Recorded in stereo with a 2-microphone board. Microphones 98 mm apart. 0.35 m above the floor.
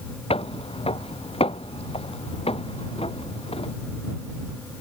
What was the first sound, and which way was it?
Footsteps, 75° left (ahead or behind).